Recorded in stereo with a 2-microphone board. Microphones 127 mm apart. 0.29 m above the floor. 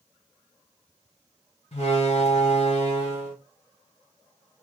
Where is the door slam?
55° left (ahead or behind), 1.8 m.